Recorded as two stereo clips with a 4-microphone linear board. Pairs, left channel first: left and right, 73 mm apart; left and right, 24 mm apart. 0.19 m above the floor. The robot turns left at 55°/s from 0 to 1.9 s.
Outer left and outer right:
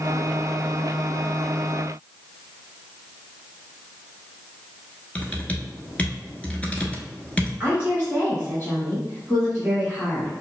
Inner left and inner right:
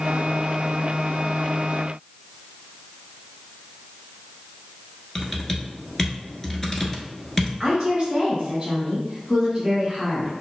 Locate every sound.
5.2 s typing on a keyboard: 20° left (ahead or behind), 0.9 m
7.6 s a woman speaking: 30° right (ahead or behind), 2.0 m